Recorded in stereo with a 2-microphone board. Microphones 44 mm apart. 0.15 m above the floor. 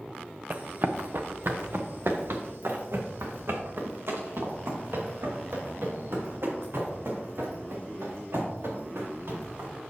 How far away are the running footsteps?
About 0.8 m.